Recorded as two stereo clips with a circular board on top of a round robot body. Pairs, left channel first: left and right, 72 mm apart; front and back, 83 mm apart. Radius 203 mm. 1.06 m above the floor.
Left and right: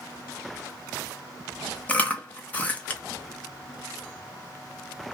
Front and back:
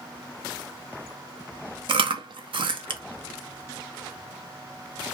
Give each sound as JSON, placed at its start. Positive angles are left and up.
{"t": 1.9, "sound": "chewing", "azimuth_deg": 160, "distance_m": 0.5}